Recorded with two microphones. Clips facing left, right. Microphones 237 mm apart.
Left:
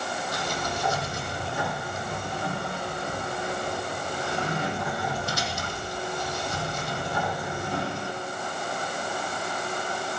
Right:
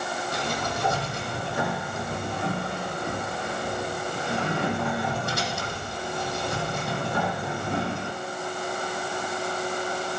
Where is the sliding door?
60° right (ahead or behind), 5 m.